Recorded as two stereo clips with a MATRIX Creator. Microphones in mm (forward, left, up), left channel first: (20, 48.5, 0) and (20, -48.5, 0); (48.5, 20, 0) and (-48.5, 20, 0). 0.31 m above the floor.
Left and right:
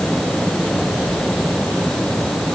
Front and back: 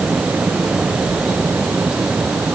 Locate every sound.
Only background noise.